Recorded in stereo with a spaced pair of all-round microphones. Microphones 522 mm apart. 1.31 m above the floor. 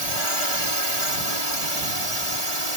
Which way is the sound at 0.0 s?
65° right (ahead or behind).